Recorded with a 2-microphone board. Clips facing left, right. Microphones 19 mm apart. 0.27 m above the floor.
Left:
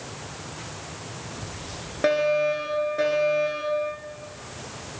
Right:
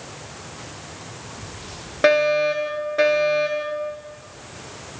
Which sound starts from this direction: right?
A fire alarm, at 2.0 s.